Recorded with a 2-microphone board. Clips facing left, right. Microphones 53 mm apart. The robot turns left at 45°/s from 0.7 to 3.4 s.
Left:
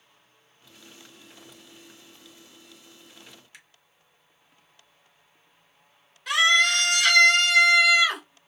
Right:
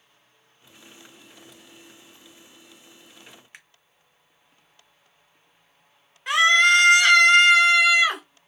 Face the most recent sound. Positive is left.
turn(degrees=-30)  # may be behind; listen again after turning